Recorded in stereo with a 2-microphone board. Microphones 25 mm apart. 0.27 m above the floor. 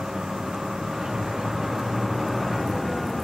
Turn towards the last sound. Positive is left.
turn(degrees=0)  # may be behind; listen again after turning